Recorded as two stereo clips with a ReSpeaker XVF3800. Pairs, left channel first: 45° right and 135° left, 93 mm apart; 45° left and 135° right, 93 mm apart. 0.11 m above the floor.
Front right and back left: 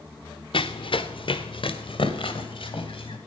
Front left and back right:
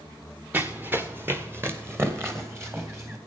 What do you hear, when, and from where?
0.5 s running footsteps: 65° right, 0.7 m; by 3.2 s 75° right, 2.5 m